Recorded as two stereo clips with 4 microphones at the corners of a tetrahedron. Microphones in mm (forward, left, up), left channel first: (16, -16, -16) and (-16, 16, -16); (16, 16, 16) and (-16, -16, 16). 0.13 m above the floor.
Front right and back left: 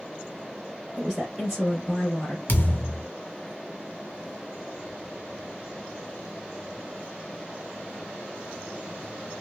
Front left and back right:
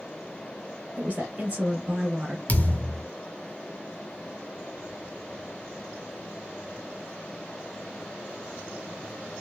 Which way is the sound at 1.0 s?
145° right.